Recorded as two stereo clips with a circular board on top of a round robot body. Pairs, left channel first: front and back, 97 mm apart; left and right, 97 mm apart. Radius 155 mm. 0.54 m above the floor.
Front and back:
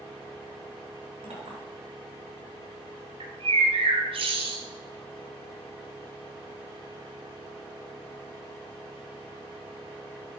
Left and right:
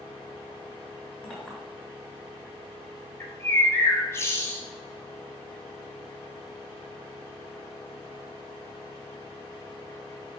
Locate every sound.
1.2 s a clink: 170° left, 5 m
3.2 s a bird: 155° left, 1.7 m